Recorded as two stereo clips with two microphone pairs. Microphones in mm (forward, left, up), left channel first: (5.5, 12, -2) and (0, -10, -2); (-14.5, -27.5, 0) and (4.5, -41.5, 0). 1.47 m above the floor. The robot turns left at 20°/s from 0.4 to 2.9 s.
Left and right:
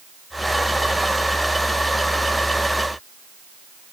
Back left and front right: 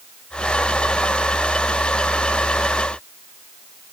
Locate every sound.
Only background noise.